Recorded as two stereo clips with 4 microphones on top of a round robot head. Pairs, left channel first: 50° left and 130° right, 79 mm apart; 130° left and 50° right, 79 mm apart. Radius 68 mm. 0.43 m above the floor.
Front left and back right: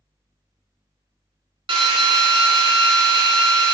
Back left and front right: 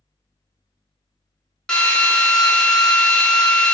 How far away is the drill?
About 0.6 m.